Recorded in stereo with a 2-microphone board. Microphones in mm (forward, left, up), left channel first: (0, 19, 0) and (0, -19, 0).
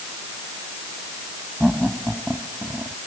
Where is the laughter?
10° right (ahead or behind).